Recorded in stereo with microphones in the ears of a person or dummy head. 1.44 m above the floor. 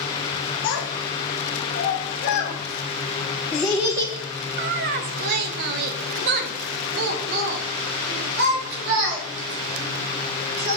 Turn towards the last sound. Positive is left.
turn(degrees=-70)  # may be behind; listen again after turning